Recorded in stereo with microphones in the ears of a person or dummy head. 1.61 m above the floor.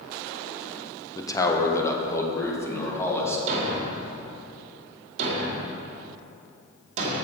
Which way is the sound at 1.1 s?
30° left (ahead or behind).